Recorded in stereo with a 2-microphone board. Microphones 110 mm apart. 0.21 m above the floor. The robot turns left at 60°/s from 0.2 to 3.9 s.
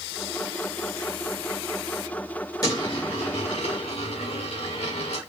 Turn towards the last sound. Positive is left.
turn(degrees=70)